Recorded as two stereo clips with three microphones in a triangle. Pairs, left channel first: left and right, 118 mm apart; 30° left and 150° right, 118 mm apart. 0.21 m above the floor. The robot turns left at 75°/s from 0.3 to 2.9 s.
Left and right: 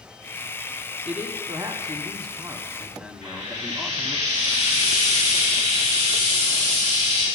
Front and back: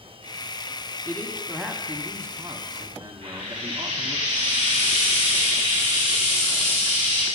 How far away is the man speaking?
About 1.7 m.